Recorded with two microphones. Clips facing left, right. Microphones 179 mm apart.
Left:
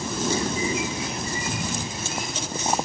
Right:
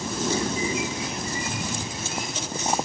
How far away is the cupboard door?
About 6 m.